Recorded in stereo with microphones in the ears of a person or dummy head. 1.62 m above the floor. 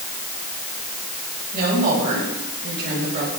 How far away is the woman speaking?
About 7.5 m.